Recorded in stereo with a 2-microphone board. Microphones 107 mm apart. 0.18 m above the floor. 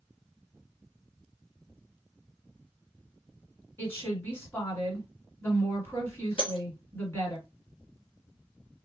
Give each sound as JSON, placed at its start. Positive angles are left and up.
{"t": 3.8, "sound": "a woman speaking", "side_deg": 20, "distance_m": 1.6}
{"t": 6.4, "sound": "breaking glass", "side_deg": 50, "distance_m": 1.4}